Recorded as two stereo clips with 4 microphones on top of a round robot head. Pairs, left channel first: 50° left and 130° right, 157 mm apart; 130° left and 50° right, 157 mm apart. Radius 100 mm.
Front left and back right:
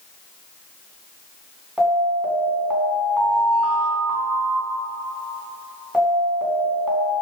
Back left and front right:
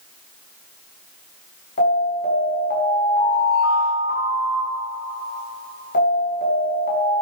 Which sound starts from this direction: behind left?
An alarm, at 1.8 s.